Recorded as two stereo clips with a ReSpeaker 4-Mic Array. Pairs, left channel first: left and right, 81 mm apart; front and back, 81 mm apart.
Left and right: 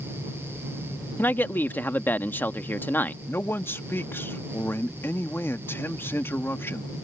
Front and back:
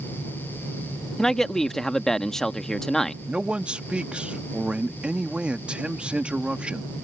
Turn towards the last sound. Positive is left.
turn(degrees=120)